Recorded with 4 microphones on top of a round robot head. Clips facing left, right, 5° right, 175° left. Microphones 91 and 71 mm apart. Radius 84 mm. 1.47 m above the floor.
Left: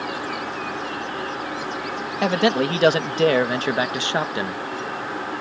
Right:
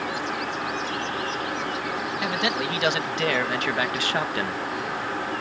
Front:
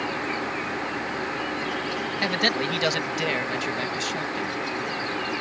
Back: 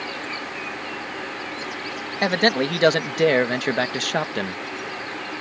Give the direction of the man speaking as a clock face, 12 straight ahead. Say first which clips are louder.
Left 10 dB, back 7 dB; 8 o'clock.